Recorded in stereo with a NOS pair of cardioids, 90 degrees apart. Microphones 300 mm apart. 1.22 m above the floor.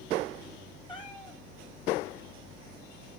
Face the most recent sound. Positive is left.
turn(degrees=15)